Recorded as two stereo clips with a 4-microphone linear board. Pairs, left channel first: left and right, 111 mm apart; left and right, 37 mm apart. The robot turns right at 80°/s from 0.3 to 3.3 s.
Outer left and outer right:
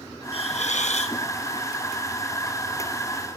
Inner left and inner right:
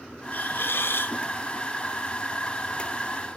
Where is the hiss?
55° left, 0.9 m; by 1.2 s 120° left, 0.9 m.